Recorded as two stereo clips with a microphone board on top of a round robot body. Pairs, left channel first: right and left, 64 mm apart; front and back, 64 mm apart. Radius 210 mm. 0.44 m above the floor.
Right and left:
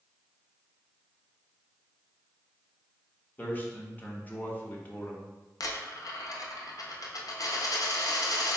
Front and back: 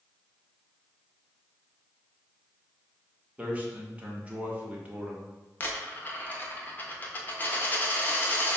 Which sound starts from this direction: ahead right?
A dropped coin, at 5.6 s.